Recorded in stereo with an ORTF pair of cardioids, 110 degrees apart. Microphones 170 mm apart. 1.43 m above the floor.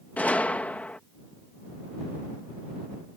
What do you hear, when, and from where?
0.2 s a gunshot: 10° left